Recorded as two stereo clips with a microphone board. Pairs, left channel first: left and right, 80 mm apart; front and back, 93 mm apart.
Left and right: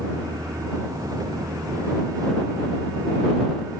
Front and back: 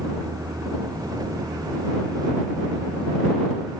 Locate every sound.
0.0 s a vehicle: 130° right